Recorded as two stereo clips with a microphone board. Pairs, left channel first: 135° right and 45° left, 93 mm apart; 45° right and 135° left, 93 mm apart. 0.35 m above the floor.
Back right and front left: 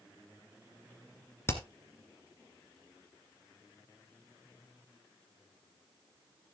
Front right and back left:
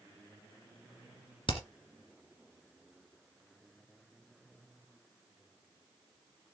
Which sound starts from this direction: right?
Hammering, at 1.5 s.